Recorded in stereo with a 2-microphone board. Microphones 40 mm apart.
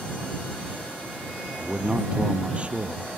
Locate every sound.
1.6 s a man speaking: 30° right (ahead or behind)